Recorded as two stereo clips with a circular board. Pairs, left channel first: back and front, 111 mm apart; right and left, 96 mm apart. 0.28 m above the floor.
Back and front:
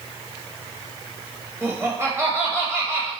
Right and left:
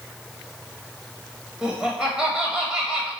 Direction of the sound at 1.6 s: 20° left.